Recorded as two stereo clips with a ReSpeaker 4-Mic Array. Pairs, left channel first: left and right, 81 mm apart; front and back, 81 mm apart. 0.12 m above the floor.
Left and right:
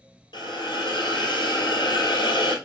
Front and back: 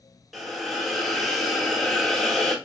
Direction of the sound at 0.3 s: 90° left.